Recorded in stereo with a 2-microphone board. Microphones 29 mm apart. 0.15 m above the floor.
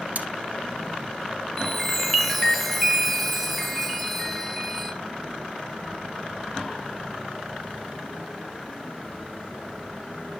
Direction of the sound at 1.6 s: 5° right (ahead or behind).